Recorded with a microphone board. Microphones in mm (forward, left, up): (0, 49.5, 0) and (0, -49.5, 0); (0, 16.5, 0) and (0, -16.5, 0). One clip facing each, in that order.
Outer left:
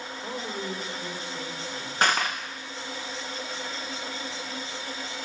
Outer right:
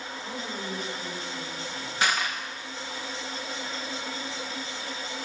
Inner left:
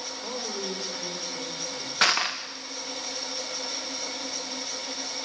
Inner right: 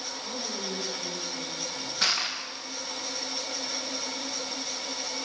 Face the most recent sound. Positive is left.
turn(degrees=55)  # may be behind; listen again after turning